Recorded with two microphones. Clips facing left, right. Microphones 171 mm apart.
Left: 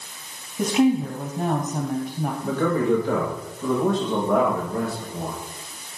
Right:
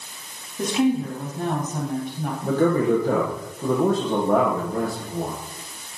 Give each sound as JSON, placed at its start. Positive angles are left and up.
{"t": 0.6, "sound": "a woman speaking", "side_deg": 15, "distance_m": 3.0}
{"t": 2.4, "sound": "a man speaking", "side_deg": -40, "distance_m": 5.5}